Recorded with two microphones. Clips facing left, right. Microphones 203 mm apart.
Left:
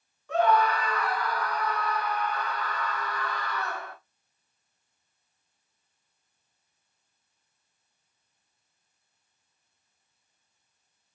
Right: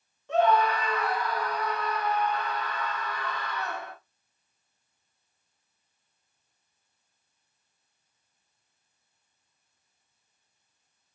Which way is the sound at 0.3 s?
25° right (ahead or behind).